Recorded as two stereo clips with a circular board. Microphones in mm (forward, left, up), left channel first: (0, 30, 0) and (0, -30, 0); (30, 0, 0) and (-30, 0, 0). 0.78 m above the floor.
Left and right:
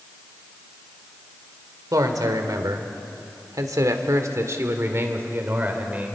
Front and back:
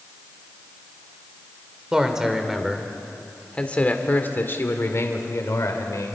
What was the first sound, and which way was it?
A man speaking, 105° right.